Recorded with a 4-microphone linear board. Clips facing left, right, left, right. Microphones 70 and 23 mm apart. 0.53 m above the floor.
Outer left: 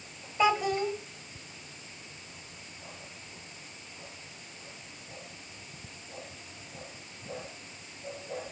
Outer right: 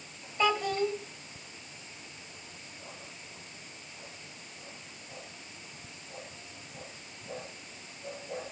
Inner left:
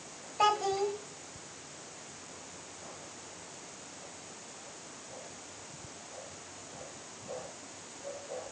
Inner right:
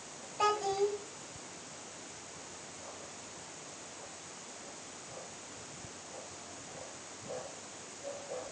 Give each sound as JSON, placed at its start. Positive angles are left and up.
{"t": 0.4, "sound": "a child speaking", "side_deg": 10, "distance_m": 1.8}